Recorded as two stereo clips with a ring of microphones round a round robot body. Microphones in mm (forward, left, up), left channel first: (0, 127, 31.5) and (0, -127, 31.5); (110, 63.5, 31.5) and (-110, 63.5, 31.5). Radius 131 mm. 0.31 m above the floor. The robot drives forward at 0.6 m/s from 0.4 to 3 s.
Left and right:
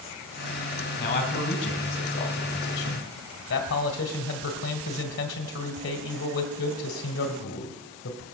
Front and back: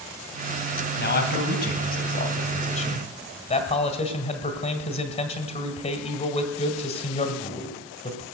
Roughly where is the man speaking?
Ahead left.